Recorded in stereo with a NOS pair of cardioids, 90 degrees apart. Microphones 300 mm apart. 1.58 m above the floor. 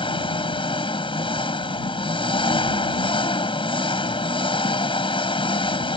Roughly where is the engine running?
Ahead.